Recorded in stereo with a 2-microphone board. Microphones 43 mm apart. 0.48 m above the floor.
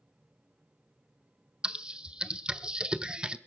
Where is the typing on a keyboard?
20° right (ahead or behind), 0.8 m.